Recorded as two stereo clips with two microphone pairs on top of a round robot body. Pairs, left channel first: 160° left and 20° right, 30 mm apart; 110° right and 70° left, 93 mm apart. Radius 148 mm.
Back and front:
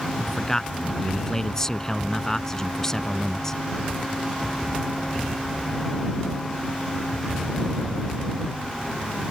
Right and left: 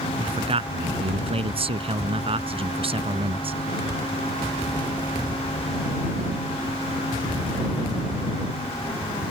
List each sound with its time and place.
0.2 s a man speaking: 85° left